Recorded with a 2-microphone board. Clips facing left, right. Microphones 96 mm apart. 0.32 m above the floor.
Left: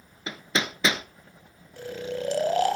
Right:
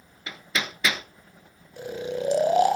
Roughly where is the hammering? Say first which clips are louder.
Left 2 dB; left.